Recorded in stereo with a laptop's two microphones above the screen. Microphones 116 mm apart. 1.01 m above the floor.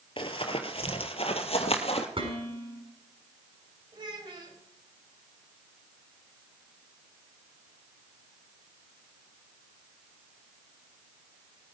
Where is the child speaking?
45° right (ahead or behind), 4 m.